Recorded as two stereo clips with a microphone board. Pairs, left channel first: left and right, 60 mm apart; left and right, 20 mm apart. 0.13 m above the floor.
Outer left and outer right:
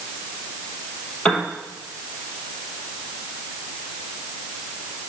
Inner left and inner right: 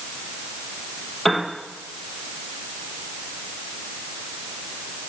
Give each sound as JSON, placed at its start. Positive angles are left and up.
{"t": 1.2, "sound": "a piano", "side_deg": 15, "distance_m": 3.5}